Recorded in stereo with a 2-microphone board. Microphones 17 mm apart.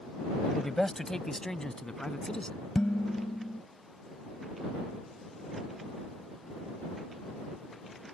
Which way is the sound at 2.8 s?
50° left (ahead or behind).